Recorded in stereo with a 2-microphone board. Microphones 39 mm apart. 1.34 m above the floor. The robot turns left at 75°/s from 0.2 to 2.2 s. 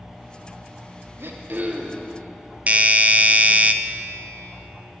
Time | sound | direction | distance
1.2 | throat clearing | 105° right | 1.0 m
2.7 | a doorbell | 40° right (ahead or behind) | 0.5 m